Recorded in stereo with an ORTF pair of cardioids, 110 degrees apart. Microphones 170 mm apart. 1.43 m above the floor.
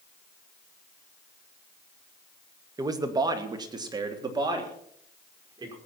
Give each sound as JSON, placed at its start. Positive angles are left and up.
{"t": 2.8, "sound": "a man speaking", "azimuth_deg": -20, "distance_m": 1.8}